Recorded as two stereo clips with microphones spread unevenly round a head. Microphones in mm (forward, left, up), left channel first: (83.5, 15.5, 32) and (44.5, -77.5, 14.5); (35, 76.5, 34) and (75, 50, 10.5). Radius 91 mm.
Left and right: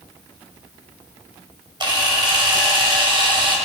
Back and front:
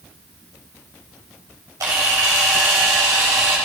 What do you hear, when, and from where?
1.8 s a camera shutter: 70° right, 6 m